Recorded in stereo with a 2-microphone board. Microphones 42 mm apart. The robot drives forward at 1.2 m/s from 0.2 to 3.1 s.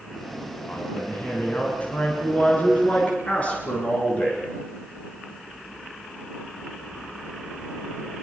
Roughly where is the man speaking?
Left.